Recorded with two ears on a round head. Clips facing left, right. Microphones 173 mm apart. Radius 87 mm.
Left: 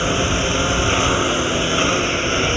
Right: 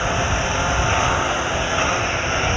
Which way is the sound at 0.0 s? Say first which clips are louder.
Left 3 dB; 45° left (ahead or behind).